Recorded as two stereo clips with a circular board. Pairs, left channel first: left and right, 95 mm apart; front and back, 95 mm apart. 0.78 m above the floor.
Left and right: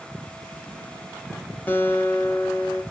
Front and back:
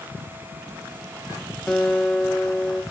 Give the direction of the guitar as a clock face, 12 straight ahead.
10 o'clock.